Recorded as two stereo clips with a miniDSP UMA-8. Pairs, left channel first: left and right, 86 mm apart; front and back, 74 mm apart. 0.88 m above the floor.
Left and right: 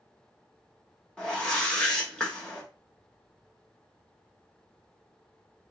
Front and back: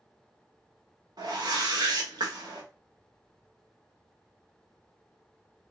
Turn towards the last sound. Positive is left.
turn(degrees=170)